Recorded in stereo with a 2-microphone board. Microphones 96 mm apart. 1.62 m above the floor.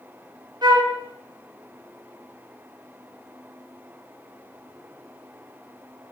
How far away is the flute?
About 2.5 m.